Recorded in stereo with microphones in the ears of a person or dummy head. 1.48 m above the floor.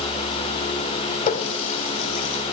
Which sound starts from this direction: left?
A running tap, at 1.3 s.